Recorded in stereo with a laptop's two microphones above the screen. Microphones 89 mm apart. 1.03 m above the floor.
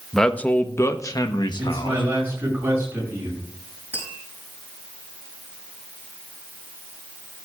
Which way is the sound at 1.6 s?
20° right (ahead or behind).